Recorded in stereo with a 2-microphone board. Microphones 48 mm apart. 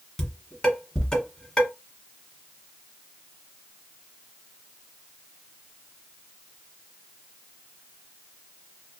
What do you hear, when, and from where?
0.2 s dishes clattering: 15° left (ahead or behind), 1.3 m